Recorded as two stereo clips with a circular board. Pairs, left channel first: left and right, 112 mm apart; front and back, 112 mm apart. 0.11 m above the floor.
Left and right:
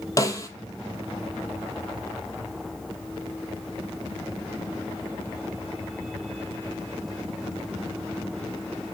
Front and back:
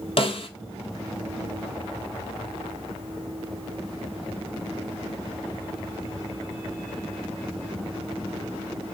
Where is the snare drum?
30° left, 0.5 m.